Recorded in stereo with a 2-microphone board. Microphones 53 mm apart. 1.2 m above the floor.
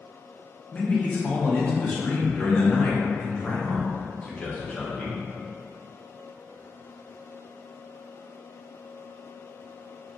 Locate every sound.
0.7 s a man speaking: 20° left (ahead or behind), 0.7 m